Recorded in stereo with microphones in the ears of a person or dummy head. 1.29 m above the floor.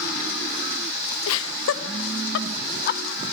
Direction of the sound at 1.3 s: 80° left.